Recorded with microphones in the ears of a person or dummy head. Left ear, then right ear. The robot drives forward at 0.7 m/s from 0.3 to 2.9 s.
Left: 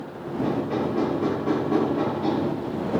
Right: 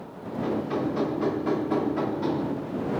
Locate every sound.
0.4 s hammering: 35° right (ahead or behind), 2.5 m; by 2.5 s 55° right (ahead or behind), 1.8 m